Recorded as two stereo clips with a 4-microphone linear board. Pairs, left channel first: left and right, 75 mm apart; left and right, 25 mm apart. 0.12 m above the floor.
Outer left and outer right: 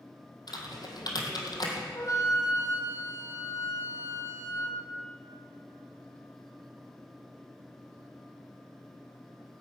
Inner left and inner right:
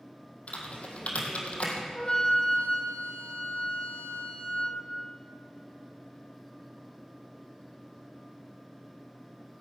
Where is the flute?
45° left (ahead or behind), 2.5 m.